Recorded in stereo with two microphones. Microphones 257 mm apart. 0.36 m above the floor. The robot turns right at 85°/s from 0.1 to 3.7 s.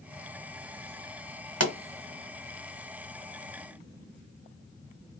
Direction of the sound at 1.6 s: 65° right (ahead or behind).